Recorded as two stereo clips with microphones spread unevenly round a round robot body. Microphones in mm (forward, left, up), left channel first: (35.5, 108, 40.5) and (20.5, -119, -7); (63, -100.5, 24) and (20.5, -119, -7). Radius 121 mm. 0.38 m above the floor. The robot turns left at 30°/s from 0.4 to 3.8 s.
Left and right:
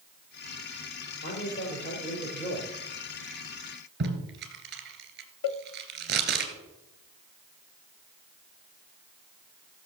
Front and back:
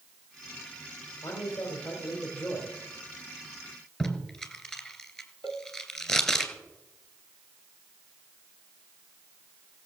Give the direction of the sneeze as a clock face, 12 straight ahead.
I don't hear a sneeze.